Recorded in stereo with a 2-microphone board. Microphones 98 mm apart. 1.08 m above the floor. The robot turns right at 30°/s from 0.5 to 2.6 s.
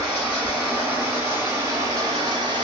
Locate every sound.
0.0 s running water: 170° right, 1.3 m; by 2.6 s 110° right, 1.3 m